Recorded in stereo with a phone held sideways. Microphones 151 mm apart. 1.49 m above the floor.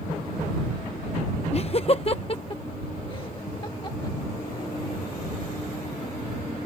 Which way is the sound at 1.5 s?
45° left (ahead or behind).